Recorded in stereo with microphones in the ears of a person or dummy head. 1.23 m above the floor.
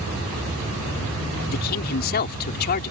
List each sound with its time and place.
1.5 s a man speaking: 45° left (ahead or behind)